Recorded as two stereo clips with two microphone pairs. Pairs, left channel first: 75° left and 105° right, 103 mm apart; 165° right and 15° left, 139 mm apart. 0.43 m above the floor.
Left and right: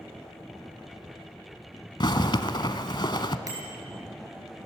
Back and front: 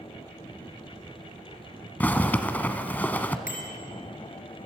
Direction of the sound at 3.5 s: 155° right.